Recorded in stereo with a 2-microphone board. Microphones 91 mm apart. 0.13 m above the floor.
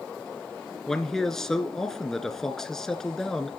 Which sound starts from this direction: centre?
A man speaking, at 0.9 s.